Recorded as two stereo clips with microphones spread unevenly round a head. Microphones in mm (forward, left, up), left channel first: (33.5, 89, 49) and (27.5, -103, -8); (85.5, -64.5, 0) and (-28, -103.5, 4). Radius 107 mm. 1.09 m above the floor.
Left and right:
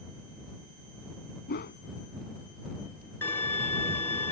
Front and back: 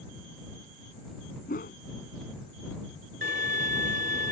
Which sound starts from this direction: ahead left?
A whoosh, at 1.5 s.